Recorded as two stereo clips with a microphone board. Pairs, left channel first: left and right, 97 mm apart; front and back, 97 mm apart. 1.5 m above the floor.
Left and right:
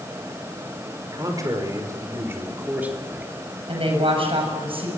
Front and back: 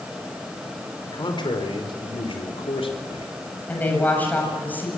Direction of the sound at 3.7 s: 70° right.